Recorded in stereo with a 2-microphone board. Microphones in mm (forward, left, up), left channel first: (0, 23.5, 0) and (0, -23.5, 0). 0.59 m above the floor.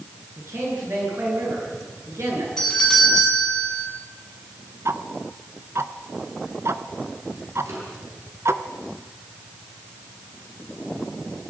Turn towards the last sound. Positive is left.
turn(degrees=-65)  # may be behind; listen again after turning